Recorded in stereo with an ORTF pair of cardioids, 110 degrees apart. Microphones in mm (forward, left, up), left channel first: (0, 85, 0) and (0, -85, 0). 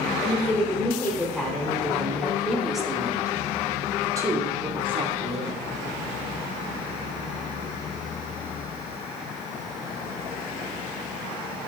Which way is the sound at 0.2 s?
15° left.